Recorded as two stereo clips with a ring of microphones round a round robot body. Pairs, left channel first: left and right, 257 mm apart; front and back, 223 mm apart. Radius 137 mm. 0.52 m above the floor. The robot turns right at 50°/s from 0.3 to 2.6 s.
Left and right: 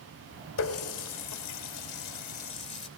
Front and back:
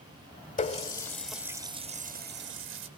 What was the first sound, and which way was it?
A running tap, 55° left.